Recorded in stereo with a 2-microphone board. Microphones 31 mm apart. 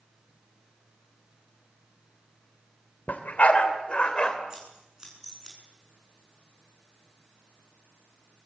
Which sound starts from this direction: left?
A dog barking, at 3.1 s.